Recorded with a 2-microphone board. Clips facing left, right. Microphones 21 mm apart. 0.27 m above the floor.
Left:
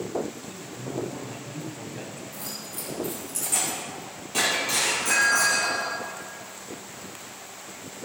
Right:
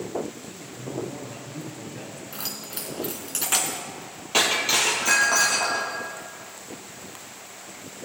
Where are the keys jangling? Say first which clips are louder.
Right 2 dB; 65° right (ahead or behind), 1.9 m.